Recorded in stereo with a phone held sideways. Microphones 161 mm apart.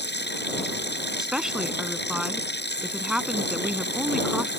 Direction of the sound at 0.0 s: 85° left.